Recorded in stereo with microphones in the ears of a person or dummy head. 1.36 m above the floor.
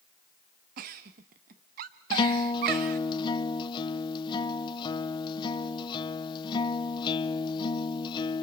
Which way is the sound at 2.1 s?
25° left (ahead or behind).